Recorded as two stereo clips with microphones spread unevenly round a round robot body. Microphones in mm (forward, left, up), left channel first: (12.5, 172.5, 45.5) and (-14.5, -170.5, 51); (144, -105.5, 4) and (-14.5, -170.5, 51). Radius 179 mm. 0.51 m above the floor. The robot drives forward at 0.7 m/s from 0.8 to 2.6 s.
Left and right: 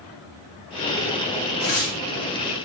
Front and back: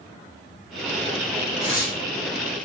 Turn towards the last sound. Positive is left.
turn(degrees=140)